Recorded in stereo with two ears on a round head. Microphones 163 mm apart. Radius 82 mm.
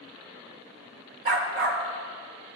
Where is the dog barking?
55° right (ahead or behind), 1.3 m; by 2.6 s 65° right (ahead or behind), 2.5 m.